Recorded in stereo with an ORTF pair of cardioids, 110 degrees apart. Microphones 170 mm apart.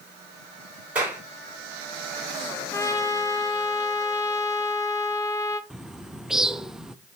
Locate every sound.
0.9 s a clap: 10° right, 6 m
2.7 s a trumpet: 20° left, 1.1 m
5.7 s a bird: 5° right, 0.5 m